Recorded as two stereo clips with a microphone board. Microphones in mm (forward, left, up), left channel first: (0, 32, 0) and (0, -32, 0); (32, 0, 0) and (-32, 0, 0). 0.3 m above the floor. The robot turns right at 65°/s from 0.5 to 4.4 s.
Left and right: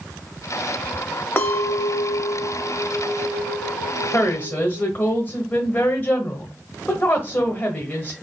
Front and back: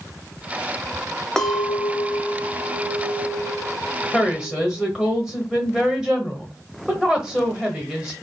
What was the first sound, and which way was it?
A clink, 75° left.